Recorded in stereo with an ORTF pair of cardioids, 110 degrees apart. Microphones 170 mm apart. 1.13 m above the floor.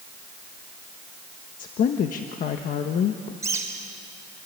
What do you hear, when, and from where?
1.6 s a woman speaking: 60° left, 1.3 m
3.4 s a bird: 20° right, 4 m